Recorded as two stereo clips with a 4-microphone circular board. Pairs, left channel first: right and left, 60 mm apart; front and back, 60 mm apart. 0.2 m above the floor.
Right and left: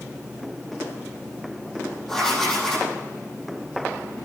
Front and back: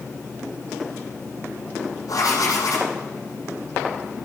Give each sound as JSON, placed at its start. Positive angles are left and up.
{"t": 2.1, "sound": "writing", "azimuth_deg": -5, "distance_m": 9.0}